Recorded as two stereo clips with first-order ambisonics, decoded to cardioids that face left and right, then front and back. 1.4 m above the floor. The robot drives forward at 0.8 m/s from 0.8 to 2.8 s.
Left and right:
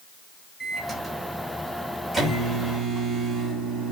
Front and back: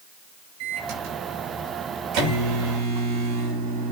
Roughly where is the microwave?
Behind.